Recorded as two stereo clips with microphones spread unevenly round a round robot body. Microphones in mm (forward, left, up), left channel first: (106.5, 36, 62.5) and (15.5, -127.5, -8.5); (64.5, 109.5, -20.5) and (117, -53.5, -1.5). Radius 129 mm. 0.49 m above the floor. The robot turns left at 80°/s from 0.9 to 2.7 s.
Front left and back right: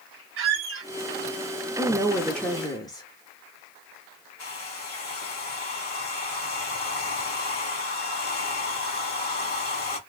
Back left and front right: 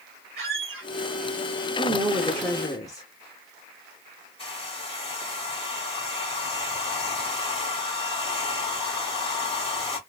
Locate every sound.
0.4 s a squeak: 130° right, 1.9 m
1.8 s a woman speaking: 135° right, 0.7 m; by 3.0 s 150° left, 0.7 m
4.4 s a hair dryer: 55° left, 2 m